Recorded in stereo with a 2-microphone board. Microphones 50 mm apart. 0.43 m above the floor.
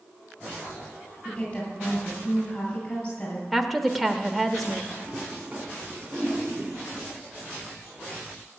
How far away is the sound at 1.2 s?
About 8.5 m.